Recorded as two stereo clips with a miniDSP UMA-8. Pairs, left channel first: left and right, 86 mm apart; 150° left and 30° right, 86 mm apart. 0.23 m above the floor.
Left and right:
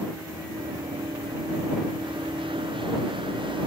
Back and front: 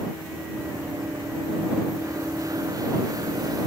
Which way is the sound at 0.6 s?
85° right.